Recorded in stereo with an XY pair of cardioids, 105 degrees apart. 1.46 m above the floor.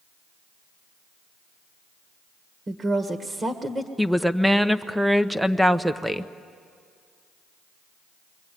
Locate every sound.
2.7 s a woman speaking: 30° right, 1.8 m
4.0 s a woman speaking: 5° right, 1.0 m